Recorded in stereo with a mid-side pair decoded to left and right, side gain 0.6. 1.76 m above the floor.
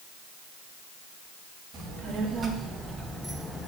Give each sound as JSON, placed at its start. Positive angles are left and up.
{"t": 1.7, "sound": "a child speaking", "azimuth_deg": -45, "distance_m": 2.5}